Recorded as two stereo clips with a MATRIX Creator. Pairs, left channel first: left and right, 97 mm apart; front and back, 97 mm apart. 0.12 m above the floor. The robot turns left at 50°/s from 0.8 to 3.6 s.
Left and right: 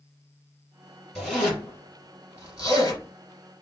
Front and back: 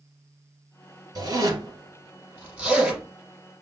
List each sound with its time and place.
1.1 s a zipper: straight behind, 2 m; by 3.0 s 90° left, 2 m